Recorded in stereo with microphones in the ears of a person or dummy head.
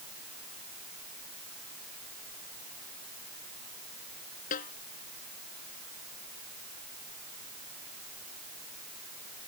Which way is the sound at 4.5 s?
50° left (ahead or behind).